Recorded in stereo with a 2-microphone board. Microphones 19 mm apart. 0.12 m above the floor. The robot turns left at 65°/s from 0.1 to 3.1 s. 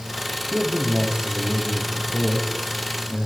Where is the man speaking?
65° right, 5.5 m; by 3.3 s 125° left, 5.5 m.